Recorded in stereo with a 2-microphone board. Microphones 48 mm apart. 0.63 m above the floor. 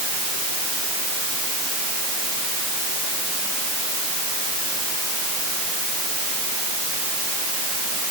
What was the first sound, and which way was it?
Only background noise.